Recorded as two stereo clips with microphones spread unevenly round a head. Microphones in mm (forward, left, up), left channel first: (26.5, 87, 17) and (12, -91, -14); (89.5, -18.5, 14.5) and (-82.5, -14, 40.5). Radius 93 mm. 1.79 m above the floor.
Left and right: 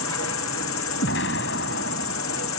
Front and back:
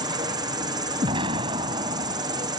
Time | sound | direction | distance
0.0 | an insect | 110° left | ?
1.0 | an explosion | 115° left | ?